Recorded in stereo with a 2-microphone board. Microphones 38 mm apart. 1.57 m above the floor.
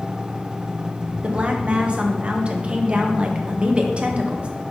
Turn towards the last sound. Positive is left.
turn(degrees=-35)  # may be behind; listen again after turning